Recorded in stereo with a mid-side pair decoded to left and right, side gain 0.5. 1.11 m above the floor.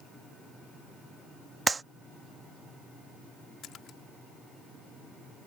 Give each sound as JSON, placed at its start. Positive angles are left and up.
{"t": 1.7, "sound": "a clap", "azimuth_deg": -25}
{"t": 3.6, "sound": "a splash", "azimuth_deg": 65}